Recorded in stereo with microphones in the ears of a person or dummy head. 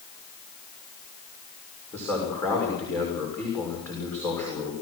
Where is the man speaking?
Centre (ahead or behind), 6 m.